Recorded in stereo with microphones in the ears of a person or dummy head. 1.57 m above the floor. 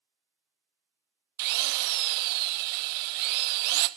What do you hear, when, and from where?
1.4 s a drill: 50° right (ahead or behind), 0.5 m